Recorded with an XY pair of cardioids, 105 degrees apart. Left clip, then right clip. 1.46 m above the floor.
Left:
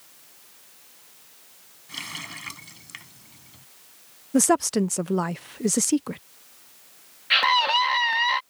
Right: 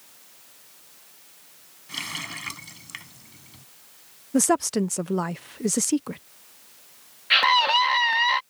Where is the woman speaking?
10° left.